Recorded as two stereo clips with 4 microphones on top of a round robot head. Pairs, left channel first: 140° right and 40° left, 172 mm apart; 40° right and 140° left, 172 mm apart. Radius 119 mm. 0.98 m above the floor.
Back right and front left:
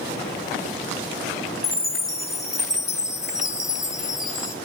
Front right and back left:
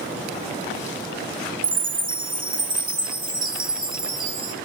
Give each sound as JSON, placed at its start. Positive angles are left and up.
{"t": 1.6, "sound": "a chime", "azimuth_deg": 125, "distance_m": 0.8}